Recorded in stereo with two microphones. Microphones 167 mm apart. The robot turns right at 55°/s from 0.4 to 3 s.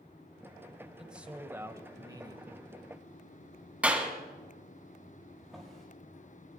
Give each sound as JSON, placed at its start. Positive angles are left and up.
{"t": 1.0, "sound": "a man speaking", "side_deg": -5, "distance_m": 1.2}
{"t": 3.8, "sound": "a clap", "side_deg": -10, "distance_m": 2.0}
{"t": 5.4, "sound": "a drawer", "side_deg": 0, "distance_m": 6.5}